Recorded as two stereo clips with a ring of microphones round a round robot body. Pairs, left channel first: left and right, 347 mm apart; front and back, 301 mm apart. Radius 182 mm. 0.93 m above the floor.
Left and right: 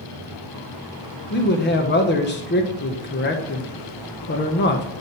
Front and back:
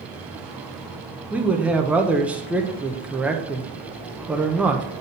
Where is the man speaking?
100° left, 1.0 m.